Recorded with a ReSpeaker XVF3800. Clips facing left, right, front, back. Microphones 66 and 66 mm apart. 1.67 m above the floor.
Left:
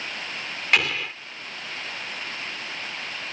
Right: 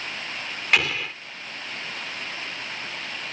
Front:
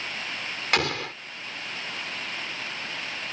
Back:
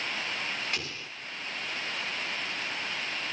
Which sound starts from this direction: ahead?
An explosion, at 0.7 s.